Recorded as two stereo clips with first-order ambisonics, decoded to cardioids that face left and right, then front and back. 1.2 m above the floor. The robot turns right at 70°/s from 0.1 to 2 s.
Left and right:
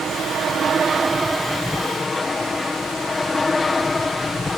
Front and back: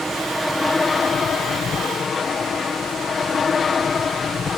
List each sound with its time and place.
0.0 s an aircraft: 105° right; by 4.6 s 30° left